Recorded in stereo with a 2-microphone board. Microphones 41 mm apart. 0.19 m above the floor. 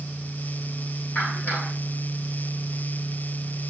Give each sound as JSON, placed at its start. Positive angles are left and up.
{"t": 1.1, "sound": "a clap", "side_deg": 40, "distance_m": 8.0}